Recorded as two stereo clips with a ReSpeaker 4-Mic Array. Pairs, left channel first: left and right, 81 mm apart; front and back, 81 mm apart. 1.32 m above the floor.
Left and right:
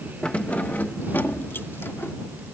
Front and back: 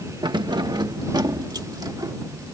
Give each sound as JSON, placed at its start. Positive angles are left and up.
{"t": 0.2, "sound": "keys jangling", "azimuth_deg": 165}